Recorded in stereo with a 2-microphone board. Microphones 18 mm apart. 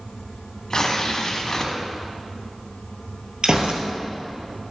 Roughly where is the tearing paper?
Left.